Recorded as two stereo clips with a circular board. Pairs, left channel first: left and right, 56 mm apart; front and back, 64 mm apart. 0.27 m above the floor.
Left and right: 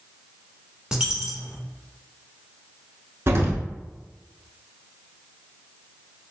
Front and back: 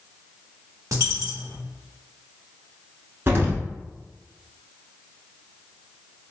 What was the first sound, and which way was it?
A dropped coin, 165° right.